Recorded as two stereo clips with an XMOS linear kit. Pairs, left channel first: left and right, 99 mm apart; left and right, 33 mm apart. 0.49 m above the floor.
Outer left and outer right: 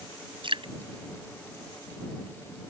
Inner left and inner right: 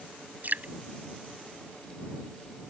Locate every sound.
0.4 s dripping: 60° right (ahead or behind)